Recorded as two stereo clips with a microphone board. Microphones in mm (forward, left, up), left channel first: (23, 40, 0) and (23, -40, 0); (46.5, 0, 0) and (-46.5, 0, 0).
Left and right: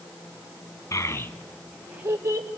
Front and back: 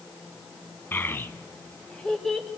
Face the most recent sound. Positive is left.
turn(degrees=-90)